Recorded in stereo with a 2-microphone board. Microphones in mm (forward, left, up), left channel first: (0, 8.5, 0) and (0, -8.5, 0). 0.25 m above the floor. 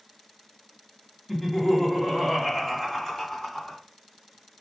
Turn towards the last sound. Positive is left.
turn(degrees=30)  # may be behind; listen again after turning